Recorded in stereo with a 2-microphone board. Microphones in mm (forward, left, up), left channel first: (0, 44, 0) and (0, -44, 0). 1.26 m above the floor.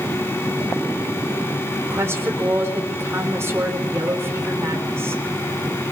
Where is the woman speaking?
30° right (ahead or behind), 3.5 m.